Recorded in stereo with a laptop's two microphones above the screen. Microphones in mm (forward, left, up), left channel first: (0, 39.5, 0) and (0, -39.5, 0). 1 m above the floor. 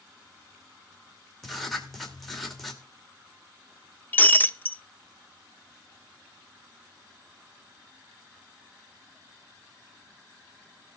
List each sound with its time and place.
1.4 s writing: centre (ahead or behind), 2 m
4.1 s breaking glass: 25° left (ahead or behind), 0.6 m